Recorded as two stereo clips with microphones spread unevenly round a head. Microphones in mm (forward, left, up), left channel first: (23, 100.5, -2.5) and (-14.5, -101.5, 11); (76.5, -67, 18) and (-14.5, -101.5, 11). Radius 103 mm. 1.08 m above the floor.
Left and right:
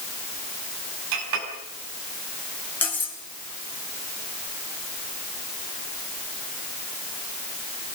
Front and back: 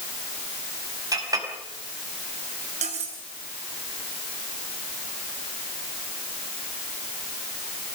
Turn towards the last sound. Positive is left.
turn(degrees=160)